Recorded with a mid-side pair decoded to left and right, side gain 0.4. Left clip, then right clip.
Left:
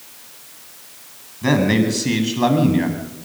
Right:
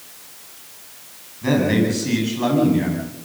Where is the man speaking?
45° left, 9.5 m.